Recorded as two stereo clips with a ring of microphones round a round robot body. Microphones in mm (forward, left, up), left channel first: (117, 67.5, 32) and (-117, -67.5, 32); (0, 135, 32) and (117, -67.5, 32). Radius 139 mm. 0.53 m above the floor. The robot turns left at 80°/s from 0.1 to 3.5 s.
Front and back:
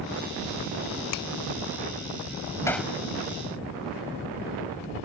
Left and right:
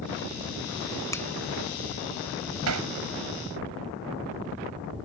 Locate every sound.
1.1 s a finger snap: 45° left; by 1.3 s 30° left
2.7 s hammering: 50° right; by 2.9 s 70° right